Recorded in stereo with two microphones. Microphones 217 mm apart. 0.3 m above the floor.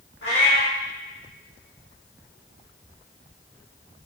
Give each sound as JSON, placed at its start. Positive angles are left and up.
{"t": 0.2, "sound": "a cat meowing", "side_deg": 60, "distance_m": 1.6}